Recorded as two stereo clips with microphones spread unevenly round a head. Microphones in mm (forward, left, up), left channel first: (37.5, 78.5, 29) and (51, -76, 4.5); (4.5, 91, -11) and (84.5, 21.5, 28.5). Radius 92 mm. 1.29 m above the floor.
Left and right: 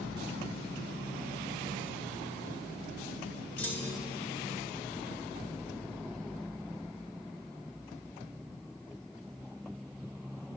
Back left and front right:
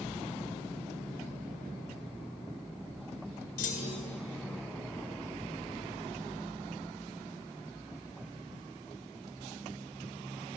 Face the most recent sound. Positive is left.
turn(degrees=170)